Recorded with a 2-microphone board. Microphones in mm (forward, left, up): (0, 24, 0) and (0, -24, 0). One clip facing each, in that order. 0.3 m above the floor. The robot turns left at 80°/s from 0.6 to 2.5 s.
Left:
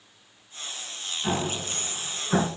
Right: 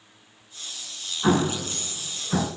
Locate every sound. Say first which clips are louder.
1.2 s an explosion: right 7 dB; 70° right (ahead or behind), 1.9 m; by 2.5 s 25° left (ahead or behind), 1.9 m